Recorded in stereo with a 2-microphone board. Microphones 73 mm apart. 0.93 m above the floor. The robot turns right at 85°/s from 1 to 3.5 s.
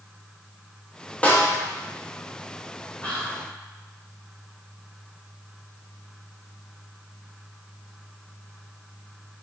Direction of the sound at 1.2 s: 20° left (ahead or behind).